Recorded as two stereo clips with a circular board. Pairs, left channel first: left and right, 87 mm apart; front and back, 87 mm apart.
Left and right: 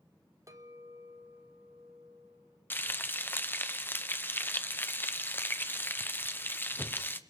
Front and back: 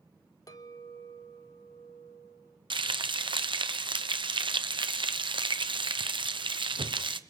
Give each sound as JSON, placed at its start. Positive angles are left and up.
{"t": 0.5, "sound": "a clink", "azimuth_deg": -40, "distance_m": 1.4}
{"t": 2.7, "sound": "frying", "azimuth_deg": 160, "distance_m": 0.9}